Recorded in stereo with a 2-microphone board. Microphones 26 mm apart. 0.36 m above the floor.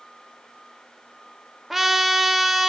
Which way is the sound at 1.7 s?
10° right (ahead or behind).